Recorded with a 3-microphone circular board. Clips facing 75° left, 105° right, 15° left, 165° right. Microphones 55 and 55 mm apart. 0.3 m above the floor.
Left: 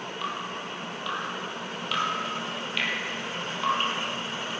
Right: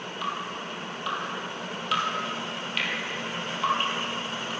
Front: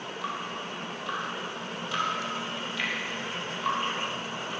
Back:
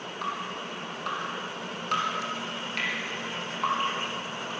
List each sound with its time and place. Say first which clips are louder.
0.2 s dripping: right 2 dB, back 2 dB; 165° left, 4 m